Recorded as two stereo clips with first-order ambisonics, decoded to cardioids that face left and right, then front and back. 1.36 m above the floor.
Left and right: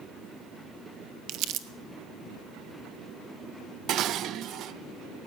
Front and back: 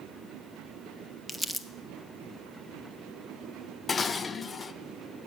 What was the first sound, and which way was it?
Crumpling, 85° right.